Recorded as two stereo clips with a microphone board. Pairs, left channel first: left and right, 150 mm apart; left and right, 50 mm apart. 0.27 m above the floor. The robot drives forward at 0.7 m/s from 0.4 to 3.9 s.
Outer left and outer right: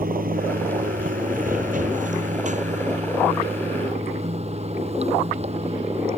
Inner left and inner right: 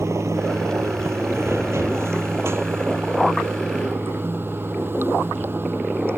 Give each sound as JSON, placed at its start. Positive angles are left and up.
{"t": 0.0, "sound": "running water", "side_deg": -80}